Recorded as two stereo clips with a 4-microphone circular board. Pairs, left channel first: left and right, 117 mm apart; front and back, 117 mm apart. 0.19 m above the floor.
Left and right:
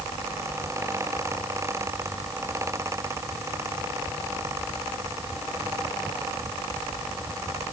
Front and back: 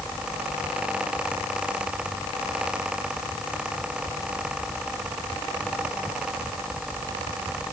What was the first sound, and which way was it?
Only background noise.